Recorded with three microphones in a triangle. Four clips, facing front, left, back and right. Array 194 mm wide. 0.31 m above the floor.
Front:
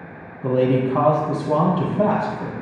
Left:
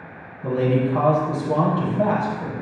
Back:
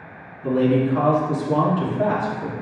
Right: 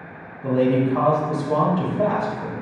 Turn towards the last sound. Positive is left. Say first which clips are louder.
# right 2 dB, even
turn(degrees=0)